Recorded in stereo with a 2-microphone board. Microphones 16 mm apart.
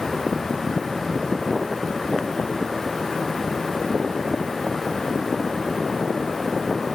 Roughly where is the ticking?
No ticking in this recording.